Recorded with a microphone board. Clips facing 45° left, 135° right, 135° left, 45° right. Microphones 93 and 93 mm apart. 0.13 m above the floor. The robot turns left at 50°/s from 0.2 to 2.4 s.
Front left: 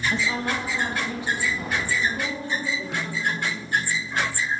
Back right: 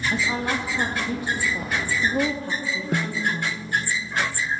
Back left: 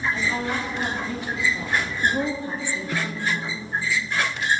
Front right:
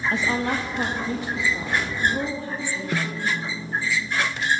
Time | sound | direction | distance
0.1 | a woman speaking | 50° right | 4 m
2.9 | a snare drum | 110° right | 2 m